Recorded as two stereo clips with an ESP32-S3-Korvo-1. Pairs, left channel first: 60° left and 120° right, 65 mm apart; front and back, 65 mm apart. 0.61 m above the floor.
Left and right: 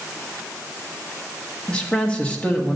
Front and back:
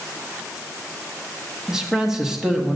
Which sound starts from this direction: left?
A man speaking, at 1.7 s.